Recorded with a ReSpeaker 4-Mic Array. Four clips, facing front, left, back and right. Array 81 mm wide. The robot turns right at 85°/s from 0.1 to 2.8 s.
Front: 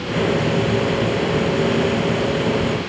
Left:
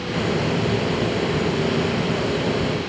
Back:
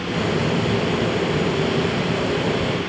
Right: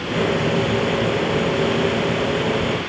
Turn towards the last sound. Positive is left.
No sound to turn to.